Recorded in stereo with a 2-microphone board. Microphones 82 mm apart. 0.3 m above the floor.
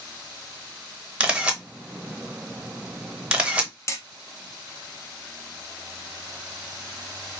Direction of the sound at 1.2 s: 10° right (ahead or behind).